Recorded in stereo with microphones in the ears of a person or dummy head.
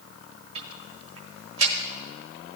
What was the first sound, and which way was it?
Ticking, 35° right (ahead or behind).